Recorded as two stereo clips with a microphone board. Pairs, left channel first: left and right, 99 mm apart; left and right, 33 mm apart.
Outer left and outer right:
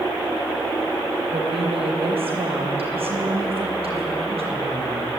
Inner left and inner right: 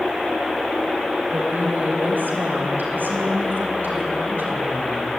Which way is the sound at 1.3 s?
80° right.